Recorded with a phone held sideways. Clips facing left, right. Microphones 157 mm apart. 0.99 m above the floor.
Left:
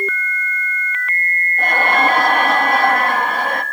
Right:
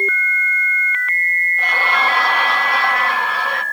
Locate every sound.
1.6 s laughter: 45° left (ahead or behind), 1.3 m